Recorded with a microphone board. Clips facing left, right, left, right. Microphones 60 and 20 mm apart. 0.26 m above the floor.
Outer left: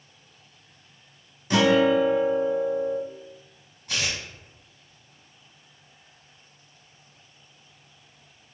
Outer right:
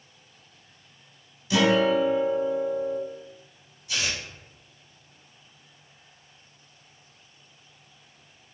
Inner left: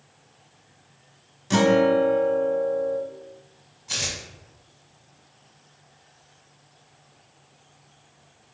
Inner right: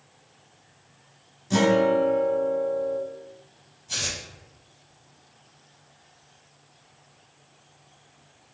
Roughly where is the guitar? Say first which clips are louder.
Outer left 2 dB, inner left 2 dB; left.